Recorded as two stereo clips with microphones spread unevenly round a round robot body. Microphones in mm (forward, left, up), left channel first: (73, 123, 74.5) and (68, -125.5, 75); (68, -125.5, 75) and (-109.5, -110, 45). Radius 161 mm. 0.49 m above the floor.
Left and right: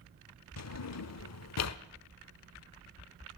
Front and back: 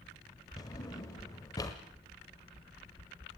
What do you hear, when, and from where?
0.6 s a drawer: 70° left, 1.0 m